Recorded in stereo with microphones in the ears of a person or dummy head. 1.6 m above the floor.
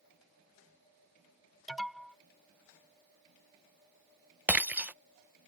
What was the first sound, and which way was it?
An alarm, centre (ahead or behind).